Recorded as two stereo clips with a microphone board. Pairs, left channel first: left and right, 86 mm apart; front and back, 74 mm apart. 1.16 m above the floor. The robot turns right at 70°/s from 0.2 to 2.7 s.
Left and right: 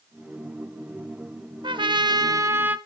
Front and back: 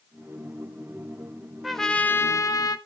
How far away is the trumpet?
About 1.0 m.